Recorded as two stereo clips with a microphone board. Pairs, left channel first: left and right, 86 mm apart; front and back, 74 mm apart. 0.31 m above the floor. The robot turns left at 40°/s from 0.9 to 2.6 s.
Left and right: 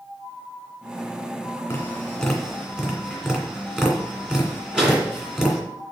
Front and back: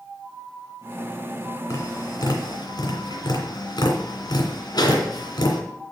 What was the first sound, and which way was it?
Tapping, 30° left.